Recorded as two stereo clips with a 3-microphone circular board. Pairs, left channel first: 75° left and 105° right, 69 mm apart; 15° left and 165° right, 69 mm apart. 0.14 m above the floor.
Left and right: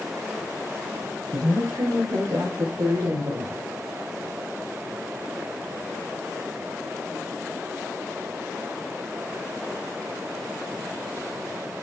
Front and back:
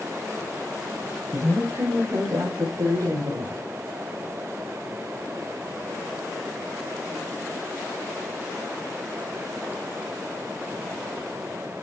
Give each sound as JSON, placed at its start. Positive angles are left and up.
{"t": 1.3, "sound": "a woman speaking", "azimuth_deg": -120, "distance_m": 5.0}